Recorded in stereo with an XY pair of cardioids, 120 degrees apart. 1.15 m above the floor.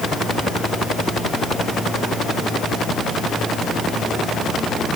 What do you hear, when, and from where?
Only background noise.